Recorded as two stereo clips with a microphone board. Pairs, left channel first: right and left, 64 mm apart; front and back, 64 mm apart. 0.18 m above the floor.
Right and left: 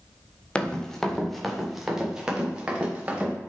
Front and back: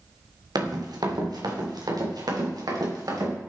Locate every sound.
0.6 s running footsteps: 165° right, 3 m; by 3.3 s 160° left, 4.5 m